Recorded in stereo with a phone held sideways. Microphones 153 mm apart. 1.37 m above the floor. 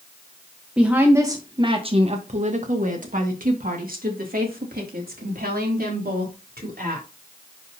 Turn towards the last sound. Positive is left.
turn(degrees=-85)